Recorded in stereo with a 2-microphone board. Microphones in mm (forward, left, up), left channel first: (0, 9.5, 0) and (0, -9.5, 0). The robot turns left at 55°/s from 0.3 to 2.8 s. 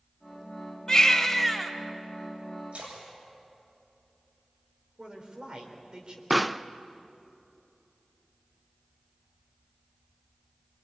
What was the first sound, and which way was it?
A baby crying, 30° left.